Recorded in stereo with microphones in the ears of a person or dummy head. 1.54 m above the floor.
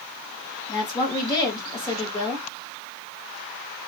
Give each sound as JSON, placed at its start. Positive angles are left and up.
{"t": 0.7, "sound": "a woman speaking", "side_deg": 20, "distance_m": 2.5}